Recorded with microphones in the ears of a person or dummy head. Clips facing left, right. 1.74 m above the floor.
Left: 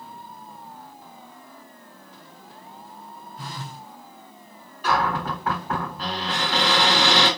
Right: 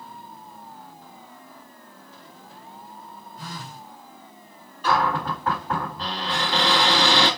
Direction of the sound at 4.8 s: 15° left (ahead or behind).